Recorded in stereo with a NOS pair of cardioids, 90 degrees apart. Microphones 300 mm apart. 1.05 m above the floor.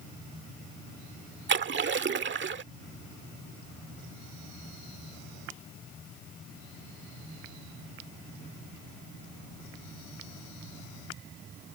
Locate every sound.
1.5 s a splash: 40° right